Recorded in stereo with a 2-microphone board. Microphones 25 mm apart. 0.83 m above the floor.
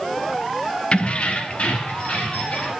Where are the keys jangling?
45° left (ahead or behind), 0.6 m; by 2.7 s 65° left (ahead or behind), 1.9 m.